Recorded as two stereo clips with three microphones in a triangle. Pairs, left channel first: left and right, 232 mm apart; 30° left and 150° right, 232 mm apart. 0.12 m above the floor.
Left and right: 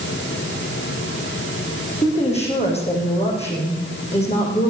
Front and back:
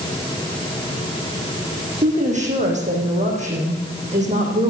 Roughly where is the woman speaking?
Behind left.